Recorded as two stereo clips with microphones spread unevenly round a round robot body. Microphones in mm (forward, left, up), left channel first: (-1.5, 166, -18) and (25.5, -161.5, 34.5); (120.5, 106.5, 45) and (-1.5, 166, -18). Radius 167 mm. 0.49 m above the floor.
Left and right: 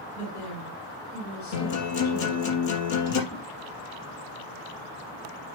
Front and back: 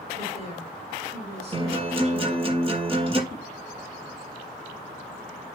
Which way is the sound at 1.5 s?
105° left.